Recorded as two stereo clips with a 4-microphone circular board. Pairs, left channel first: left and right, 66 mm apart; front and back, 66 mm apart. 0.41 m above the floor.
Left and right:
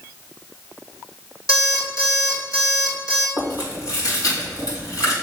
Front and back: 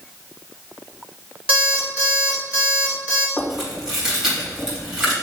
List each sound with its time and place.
1.5 s an alarm clock: 110° left, 2.5 m
3.4 s chewing: 100° left, 3 m